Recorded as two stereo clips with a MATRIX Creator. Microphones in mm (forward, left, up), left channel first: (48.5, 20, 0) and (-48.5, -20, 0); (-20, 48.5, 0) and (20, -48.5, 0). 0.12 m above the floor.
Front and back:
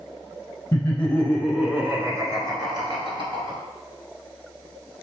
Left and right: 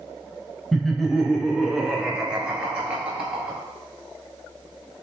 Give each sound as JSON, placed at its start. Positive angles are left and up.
{"t": 0.7, "sound": "laughter", "azimuth_deg": 25, "distance_m": 1.2}